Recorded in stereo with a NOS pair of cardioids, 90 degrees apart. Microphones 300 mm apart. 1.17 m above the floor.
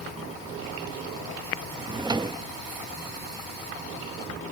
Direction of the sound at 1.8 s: 15° right.